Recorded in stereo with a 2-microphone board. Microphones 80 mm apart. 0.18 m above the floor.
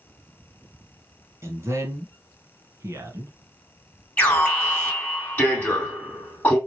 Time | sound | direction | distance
1.4 | a man speaking | 35° right (ahead or behind) | 1.3 m
4.2 | an alarm | 20° left (ahead or behind) | 2 m